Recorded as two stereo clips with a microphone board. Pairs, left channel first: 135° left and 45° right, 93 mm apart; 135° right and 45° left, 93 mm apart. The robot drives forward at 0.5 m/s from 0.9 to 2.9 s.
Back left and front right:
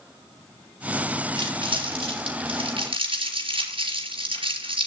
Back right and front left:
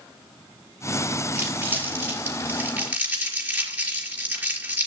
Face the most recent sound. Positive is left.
turn(degrees=-30)